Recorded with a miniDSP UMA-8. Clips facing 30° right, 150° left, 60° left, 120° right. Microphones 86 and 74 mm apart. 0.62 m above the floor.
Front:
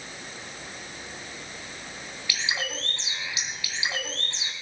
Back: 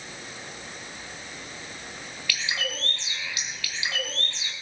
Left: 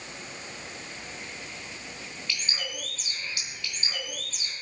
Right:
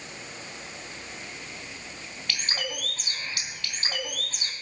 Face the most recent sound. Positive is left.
turn(degrees=-100)